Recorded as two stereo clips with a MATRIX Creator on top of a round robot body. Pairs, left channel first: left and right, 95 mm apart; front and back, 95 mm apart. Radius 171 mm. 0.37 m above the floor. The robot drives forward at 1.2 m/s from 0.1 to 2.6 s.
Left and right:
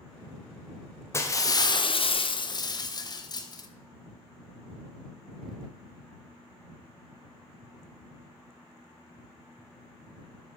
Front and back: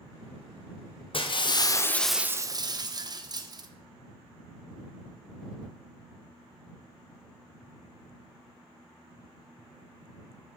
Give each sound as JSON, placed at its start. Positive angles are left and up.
{"t": 1.1, "sound": "breaking glass", "azimuth_deg": 30, "distance_m": 1.4}